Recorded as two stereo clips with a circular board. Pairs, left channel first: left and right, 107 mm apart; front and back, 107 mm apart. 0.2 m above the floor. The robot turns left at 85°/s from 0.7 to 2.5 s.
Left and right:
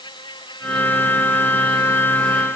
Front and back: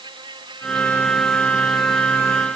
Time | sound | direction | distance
0.0 | an insect | 135° left | ?